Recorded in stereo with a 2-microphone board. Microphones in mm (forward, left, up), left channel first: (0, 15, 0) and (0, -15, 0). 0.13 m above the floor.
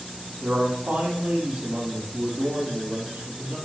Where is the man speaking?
60° right (ahead or behind), 4 m.